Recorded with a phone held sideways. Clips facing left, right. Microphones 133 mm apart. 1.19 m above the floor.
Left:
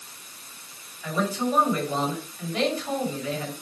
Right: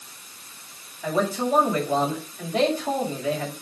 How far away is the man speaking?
About 5.5 m.